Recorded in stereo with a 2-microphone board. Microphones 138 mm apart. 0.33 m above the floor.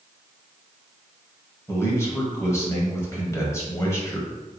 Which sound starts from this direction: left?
A man speaking, at 1.7 s.